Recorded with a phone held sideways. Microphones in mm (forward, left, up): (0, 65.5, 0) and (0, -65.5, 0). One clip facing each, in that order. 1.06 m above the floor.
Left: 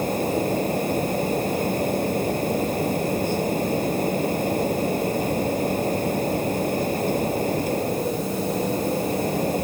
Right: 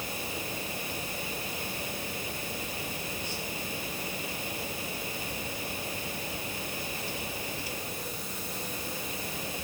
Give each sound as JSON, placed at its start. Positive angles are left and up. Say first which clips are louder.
{"t": 0.0, "sound": "a fan", "louder": "left 15 dB", "side_deg": 50}